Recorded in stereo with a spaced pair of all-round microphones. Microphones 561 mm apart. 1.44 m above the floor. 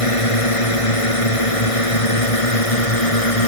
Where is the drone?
70° left (ahead or behind); by 3.5 s 75° left (ahead or behind).